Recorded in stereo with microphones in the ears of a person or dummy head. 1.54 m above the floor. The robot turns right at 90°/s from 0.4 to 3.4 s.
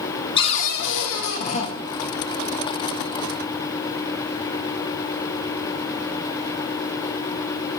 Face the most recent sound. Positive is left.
turn(degrees=-55)